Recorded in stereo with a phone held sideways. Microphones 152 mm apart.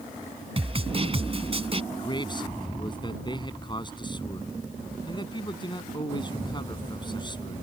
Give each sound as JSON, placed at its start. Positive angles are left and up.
{"t": 0.6, "sound": "a snare drum", "side_deg": -40}
{"t": 1.9, "sound": "a man speaking", "side_deg": 30}